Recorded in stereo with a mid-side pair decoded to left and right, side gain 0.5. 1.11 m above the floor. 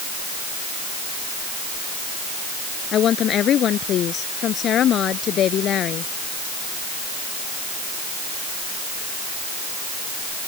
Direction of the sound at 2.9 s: 55° left.